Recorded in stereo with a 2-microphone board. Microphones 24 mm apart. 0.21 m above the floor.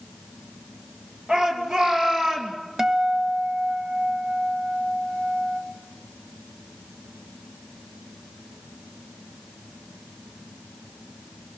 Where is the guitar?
10° right (ahead or behind), 1.0 m.